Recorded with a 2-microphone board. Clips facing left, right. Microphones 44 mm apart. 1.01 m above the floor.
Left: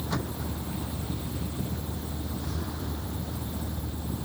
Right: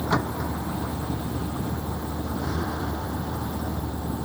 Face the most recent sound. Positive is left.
turn(degrees=-85)